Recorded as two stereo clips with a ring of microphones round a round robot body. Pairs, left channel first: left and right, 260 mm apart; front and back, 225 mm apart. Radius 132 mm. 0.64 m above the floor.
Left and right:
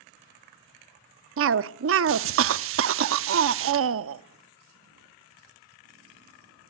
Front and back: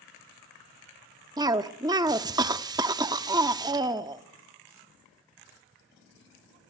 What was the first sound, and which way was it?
A cough, 110° right.